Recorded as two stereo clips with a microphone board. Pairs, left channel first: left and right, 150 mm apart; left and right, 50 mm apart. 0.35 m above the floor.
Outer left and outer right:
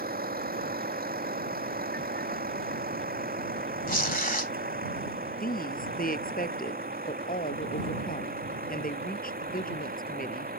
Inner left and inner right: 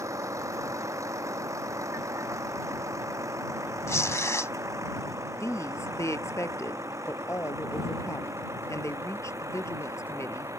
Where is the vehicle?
85° right; by 10.6 s 80° right.